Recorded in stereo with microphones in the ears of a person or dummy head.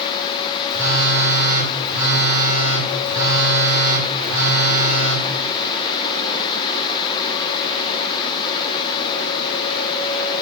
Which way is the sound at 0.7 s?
15° right (ahead or behind).